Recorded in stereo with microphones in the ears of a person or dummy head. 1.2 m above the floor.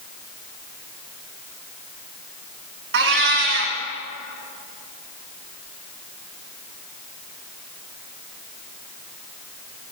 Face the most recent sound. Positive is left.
turn(degrees=-55)  # may be behind; listen again after turning